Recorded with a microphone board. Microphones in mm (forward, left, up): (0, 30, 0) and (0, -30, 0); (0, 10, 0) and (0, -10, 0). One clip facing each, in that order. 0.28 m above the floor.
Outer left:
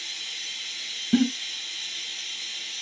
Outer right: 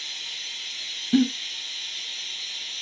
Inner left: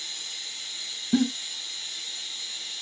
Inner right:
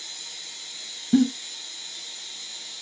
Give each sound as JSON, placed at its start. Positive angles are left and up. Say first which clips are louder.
{"t": 0.0, "sound": "running water", "louder": "even, inner left 3 dB", "side_deg": 10, "distance_m": 2.5}
{"t": 1.1, "sound": "a giggle", "louder": "outer right 1 dB, inner right 4 dB", "side_deg": 5, "distance_m": 0.7}